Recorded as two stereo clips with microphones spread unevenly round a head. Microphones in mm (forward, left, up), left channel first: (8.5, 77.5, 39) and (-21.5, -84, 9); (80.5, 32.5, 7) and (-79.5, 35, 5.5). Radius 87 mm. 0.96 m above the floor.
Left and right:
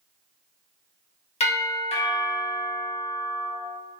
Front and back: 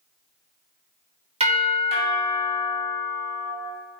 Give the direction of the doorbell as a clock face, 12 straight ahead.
8 o'clock.